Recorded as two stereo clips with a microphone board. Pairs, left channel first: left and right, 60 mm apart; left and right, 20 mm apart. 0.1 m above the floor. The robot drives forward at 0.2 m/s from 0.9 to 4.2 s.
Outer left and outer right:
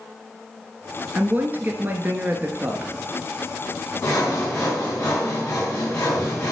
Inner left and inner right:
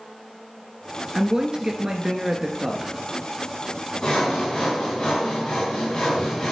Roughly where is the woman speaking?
Right.